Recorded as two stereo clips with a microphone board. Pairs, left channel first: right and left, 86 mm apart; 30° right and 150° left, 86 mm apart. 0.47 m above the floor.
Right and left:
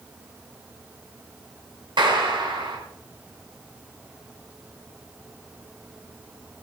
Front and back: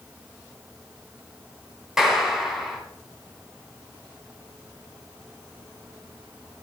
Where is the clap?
65° left, 3 m.